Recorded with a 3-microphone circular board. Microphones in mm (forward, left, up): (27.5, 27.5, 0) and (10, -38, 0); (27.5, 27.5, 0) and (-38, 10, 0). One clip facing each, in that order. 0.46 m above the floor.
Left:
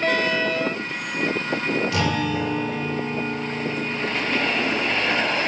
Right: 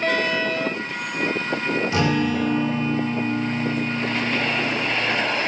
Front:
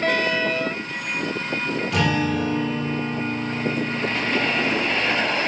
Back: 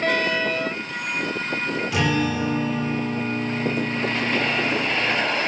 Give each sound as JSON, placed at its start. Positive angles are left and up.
{"t": 1.9, "sound": "a guitar", "azimuth_deg": -85, "distance_m": 1.4}